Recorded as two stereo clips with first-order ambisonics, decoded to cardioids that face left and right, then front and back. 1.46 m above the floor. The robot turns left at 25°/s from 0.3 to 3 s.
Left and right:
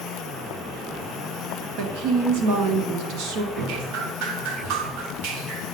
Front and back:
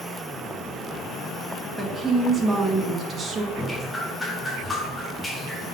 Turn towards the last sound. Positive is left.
turn(degrees=-80)